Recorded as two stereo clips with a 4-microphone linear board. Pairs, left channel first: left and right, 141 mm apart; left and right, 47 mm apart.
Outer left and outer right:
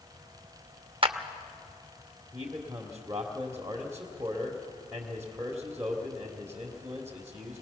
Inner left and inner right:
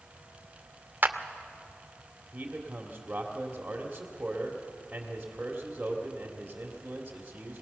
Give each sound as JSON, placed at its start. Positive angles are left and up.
{"t": 1.0, "sound": "a clap", "side_deg": -40, "distance_m": 0.8}
{"t": 2.3, "sound": "a man speaking", "side_deg": -20, "distance_m": 1.7}